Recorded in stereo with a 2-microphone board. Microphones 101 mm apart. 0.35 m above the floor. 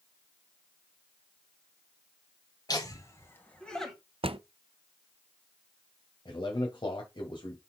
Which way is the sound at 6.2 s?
50° left (ahead or behind).